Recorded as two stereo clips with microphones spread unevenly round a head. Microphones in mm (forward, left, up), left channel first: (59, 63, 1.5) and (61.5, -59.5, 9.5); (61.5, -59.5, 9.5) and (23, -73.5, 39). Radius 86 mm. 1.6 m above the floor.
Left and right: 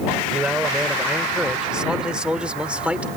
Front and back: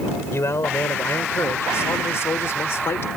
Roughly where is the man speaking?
Ahead.